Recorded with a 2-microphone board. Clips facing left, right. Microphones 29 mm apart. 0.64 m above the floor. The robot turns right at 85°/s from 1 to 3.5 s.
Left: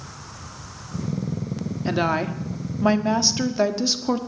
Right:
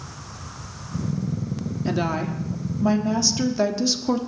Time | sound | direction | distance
1.9 | a woman speaking | 25° left | 1.2 m